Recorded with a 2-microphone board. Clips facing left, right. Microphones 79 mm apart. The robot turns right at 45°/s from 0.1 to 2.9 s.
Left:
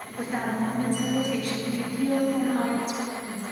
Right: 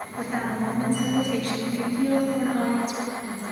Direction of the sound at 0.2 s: 160° right.